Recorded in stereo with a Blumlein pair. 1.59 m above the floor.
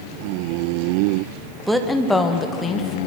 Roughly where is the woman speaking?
Ahead.